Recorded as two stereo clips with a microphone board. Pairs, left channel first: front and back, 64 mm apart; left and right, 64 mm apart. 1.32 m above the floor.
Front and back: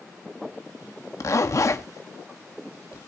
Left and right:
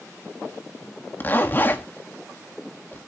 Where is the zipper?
35° left, 1.6 m.